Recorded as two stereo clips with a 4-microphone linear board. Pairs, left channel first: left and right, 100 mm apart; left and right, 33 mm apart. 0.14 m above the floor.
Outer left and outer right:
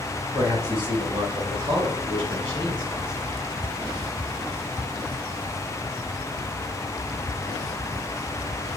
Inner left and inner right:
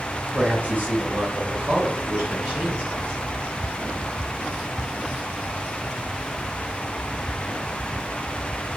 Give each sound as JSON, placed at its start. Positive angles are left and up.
{"t": 0.3, "sound": "a man speaking", "side_deg": -45, "distance_m": 2.5}